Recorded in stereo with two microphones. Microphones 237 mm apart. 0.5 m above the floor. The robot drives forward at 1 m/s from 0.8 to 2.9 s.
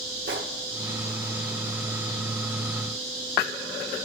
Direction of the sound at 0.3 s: 55° right (ahead or behind).